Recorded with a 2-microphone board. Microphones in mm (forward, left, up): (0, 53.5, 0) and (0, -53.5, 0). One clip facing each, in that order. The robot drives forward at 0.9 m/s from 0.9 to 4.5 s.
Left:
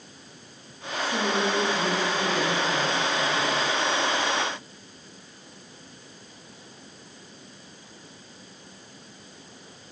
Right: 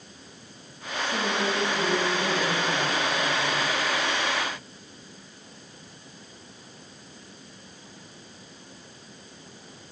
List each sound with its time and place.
1.0 s a woman speaking: 10° left (ahead or behind), 1.4 m; by 3.6 s 5° left (ahead or behind), 3.5 m